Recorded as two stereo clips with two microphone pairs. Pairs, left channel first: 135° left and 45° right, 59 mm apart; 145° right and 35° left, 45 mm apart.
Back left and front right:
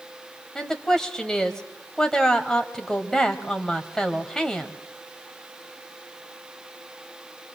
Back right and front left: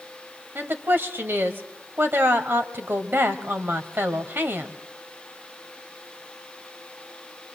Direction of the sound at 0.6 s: 55° left.